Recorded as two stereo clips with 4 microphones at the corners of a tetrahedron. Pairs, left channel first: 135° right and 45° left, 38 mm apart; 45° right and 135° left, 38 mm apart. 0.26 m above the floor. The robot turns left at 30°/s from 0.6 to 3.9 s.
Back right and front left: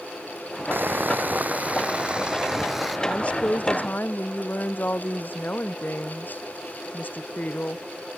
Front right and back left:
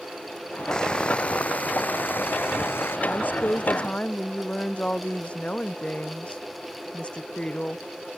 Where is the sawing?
25° left; by 3.0 s 45° right.